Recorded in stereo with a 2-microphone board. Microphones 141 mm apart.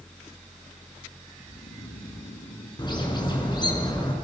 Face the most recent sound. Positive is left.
turn(degrees=35)  # may be behind; listen again after turning